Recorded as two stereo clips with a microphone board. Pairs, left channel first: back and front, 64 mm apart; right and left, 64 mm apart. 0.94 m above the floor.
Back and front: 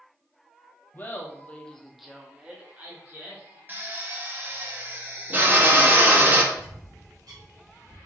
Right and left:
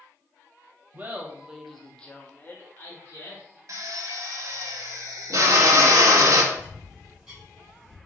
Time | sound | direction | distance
0.9 | laughter | 135° left | 0.7 m
3.7 | a drill | 60° left | 0.7 m
6.5 | a bird | 5° left | 1.5 m